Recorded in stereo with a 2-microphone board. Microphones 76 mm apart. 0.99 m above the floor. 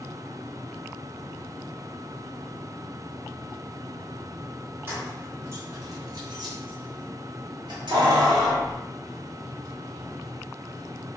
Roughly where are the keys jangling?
Right.